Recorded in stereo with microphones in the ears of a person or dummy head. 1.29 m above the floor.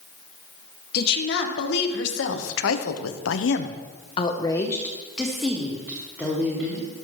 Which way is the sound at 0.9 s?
55° left (ahead or behind).